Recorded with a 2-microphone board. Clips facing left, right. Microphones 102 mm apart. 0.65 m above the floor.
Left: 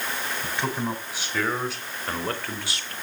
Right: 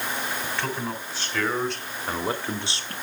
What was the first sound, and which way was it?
A man speaking, 20° left (ahead or behind).